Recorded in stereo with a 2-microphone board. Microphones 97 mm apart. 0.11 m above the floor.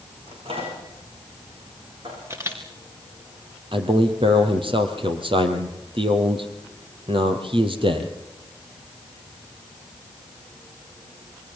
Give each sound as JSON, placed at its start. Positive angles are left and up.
{"t": 0.3, "sound": "a microwave", "side_deg": -80, "distance_m": 8.5}
{"t": 2.3, "sound": "a camera shutter", "side_deg": -30, "distance_m": 3.5}
{"t": 3.7, "sound": "a man speaking", "side_deg": -65, "distance_m": 3.0}